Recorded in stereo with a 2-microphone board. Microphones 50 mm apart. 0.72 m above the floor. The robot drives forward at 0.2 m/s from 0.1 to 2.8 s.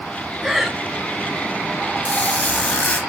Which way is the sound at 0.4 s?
5° right (ahead or behind).